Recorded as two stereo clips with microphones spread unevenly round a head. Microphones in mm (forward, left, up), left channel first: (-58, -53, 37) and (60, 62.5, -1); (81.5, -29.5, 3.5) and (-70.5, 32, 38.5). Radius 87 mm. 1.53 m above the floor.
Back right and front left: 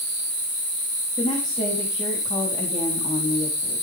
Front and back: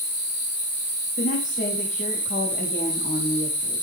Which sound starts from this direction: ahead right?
A woman speaking, at 1.2 s.